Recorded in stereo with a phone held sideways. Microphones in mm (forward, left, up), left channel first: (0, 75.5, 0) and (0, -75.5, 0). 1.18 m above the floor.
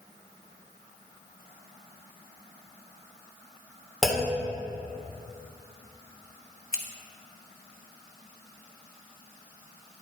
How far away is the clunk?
About 2 m.